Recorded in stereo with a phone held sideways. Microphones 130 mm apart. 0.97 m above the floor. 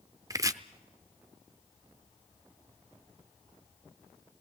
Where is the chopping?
25° right (ahead or behind), 0.7 m.